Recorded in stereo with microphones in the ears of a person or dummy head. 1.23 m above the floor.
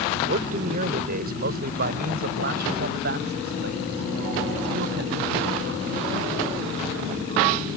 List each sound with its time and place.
0.3 s a man speaking: 45° right (ahead or behind); by 7.6 s 60° right (ahead or behind)